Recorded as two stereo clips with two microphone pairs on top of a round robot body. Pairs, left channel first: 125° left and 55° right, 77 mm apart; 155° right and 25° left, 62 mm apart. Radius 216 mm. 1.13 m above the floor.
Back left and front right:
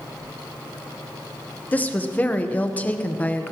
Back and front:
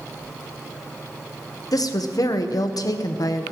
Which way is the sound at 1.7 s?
165° right.